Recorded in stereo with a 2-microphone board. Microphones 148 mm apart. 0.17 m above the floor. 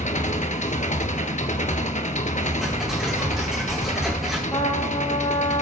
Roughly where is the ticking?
Centre.